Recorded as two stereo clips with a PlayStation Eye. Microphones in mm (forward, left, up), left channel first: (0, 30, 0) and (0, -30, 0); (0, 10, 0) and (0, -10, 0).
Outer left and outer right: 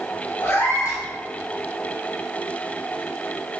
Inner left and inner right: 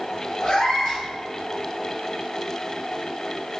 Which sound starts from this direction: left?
A cat meowing, at 0.4 s.